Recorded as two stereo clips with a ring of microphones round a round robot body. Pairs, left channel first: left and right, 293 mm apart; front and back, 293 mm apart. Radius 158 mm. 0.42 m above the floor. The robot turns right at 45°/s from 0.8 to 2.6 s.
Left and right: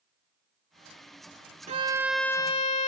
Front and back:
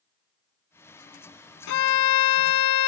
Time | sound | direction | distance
1.7 | a violin | 20° right | ?